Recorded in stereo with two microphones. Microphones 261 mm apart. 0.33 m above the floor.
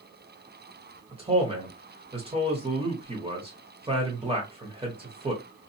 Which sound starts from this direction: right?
A man speaking, at 1.1 s.